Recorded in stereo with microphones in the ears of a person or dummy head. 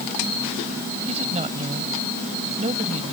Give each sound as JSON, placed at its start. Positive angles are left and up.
{"t": 1.1, "sound": "a woman speaking", "side_deg": -30}